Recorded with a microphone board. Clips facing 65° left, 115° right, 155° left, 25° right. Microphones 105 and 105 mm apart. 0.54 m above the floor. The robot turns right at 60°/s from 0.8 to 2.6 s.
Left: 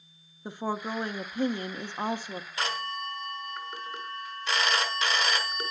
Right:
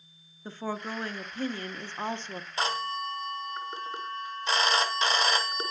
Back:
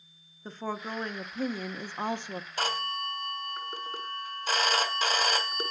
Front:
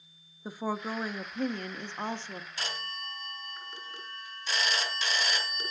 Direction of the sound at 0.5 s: 35° left.